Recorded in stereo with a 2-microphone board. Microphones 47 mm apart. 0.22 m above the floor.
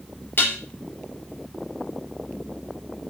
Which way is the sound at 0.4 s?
45° left (ahead or behind).